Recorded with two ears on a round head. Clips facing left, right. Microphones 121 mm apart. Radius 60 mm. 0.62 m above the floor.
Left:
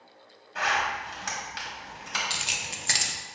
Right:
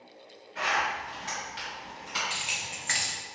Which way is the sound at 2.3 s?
45° left (ahead or behind).